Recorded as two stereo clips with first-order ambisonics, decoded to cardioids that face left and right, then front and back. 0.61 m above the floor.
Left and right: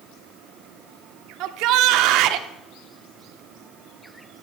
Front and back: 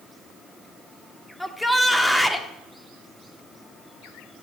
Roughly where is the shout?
Right.